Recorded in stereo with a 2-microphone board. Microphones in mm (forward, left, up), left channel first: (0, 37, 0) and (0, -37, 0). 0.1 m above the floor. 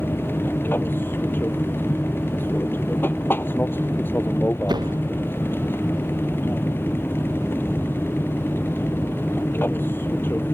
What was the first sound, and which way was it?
An aircraft, 25° left (ahead or behind).